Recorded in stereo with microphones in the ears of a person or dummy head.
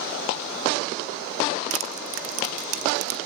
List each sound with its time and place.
1.7 s crushing: 45° right (ahead or behind), 0.9 m